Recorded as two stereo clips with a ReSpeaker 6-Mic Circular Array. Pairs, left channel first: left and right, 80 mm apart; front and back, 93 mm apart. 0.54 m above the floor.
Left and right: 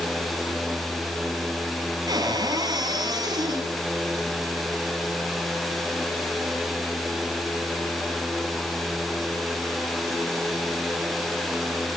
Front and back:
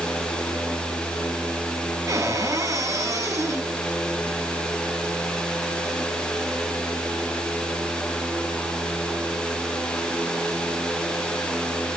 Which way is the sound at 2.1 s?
125° right.